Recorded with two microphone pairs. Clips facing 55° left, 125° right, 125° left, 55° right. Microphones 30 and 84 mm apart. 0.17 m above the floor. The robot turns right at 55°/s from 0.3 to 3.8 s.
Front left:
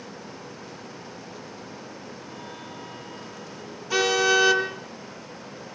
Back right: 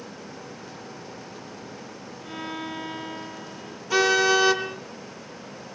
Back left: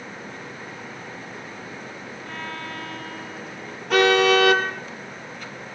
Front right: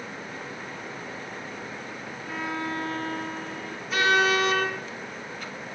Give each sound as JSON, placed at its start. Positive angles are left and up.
{"t": 2.2, "sound": "a violin", "azimuth_deg": -140, "distance_m": 1.3}
{"t": 3.9, "sound": "a car horn", "azimuth_deg": 145, "distance_m": 2.5}